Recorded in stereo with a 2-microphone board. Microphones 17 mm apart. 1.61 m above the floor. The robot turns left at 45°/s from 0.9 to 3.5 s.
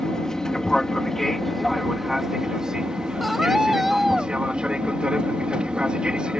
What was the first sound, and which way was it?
An aircraft, 35° left.